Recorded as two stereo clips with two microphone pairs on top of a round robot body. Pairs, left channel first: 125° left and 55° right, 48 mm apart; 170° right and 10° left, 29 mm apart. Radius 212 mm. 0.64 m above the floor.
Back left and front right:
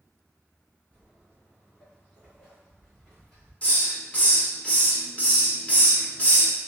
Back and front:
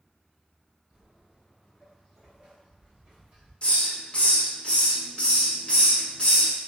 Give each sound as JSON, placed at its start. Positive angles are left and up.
{"t": 0.9, "sound": "footsteps", "azimuth_deg": 150, "distance_m": 0.6}
{"t": 3.6, "sound": "a hiss", "azimuth_deg": -175, "distance_m": 1.3}